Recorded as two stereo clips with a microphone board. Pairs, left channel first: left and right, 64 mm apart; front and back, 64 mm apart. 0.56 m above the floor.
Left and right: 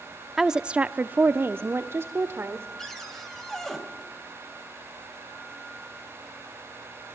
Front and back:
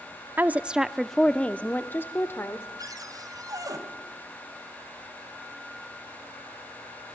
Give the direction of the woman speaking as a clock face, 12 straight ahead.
6 o'clock.